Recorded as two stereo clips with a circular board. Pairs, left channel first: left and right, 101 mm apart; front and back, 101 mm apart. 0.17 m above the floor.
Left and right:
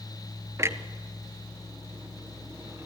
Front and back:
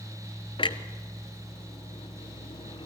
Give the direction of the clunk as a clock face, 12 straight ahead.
1 o'clock.